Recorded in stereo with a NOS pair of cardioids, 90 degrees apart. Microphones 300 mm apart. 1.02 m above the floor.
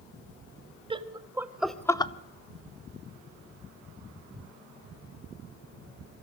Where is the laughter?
20° right, 1.7 m; by 2.1 s 20° left, 1.0 m.